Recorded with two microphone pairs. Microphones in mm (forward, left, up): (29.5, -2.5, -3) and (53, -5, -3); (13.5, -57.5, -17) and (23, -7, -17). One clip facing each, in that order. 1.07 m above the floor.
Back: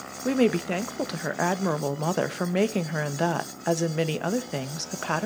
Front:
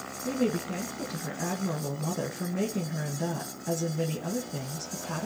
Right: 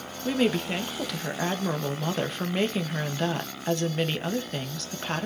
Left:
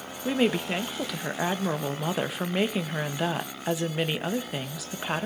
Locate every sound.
0.2 s a woman speaking: 160° left, 1.2 m